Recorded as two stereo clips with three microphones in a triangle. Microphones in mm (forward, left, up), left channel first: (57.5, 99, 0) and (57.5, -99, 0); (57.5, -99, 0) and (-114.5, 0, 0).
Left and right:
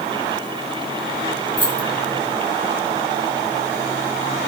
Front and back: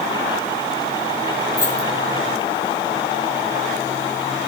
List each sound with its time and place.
1.6 s keys jangling: 45° left, 4 m